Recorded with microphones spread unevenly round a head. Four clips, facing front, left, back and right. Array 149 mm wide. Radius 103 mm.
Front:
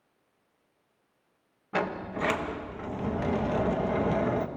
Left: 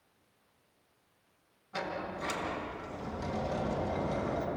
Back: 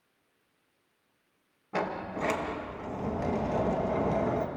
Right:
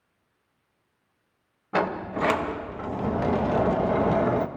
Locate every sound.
1.7 s a sliding door: 105° right, 1.2 m